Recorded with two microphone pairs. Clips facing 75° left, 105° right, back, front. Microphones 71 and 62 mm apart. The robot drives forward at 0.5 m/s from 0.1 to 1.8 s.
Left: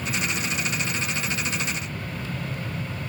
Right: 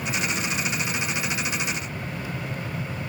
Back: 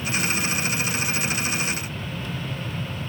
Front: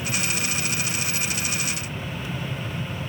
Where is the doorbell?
No doorbell in this recording.